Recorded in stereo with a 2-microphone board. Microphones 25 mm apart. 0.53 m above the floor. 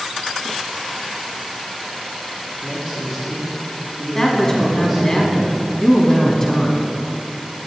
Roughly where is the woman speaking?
Centre.